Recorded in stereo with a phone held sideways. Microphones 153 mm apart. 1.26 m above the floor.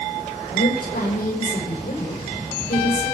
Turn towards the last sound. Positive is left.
turn(degrees=80)